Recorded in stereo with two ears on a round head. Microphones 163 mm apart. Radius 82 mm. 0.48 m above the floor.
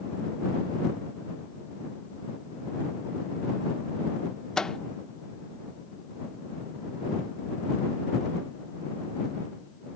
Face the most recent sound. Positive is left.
turn(degrees=5)  # may be behind; listen again after turning